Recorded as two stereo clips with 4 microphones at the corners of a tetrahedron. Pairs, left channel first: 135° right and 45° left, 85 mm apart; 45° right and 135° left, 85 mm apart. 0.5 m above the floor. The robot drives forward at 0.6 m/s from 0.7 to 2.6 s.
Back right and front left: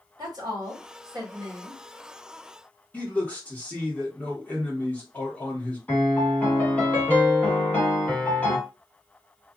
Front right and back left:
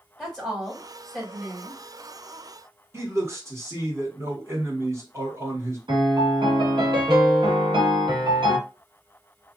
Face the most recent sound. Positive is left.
turn(degrees=150)